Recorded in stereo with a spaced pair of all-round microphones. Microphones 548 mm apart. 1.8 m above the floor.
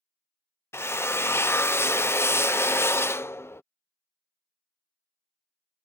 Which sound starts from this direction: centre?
A drill, at 0.7 s.